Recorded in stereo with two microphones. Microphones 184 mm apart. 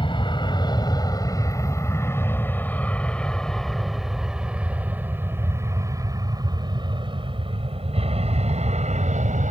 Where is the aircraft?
25° left (ahead or behind); by 9.5 s 45° right (ahead or behind).